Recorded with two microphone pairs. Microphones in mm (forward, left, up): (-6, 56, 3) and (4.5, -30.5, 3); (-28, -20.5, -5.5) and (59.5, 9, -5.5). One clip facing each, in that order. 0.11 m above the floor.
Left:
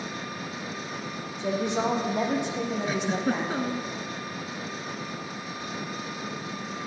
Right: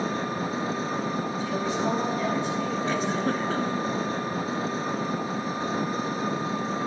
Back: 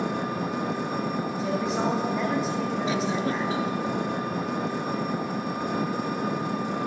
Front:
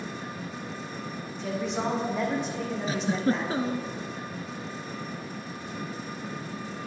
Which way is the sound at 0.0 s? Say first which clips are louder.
Right 7 dB, back 9 dB; 140° right.